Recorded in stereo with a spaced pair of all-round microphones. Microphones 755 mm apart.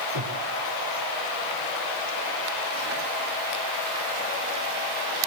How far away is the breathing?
About 3.5 m.